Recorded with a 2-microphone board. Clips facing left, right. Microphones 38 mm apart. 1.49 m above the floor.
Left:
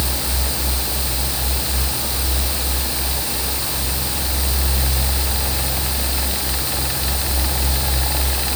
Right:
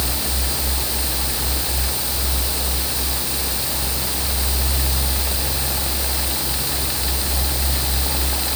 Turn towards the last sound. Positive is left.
No sound to turn to.